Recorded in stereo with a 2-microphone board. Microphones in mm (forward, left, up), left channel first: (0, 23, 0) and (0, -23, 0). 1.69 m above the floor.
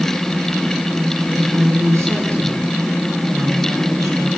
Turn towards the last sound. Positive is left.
turn(degrees=-85)